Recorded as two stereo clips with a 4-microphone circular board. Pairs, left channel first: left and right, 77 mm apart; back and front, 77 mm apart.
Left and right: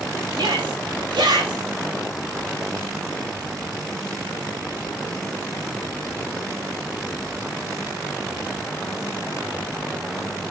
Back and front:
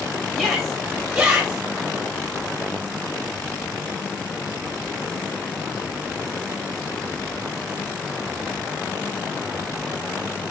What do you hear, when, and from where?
0.3 s a shout: 90° right, 3.5 m; by 1.6 s 80° right, 4 m